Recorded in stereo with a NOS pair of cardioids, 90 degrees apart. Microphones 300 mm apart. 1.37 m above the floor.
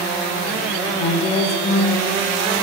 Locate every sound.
0.9 s a woman speaking: 60° left, 1.9 m; by 2.1 s 35° left, 2 m